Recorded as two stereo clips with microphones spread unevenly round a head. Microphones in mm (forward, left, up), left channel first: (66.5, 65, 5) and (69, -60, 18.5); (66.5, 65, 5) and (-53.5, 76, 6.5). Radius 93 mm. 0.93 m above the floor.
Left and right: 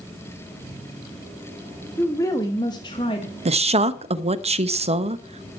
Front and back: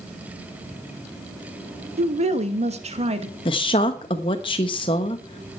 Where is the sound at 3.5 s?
55° right, 1.0 m.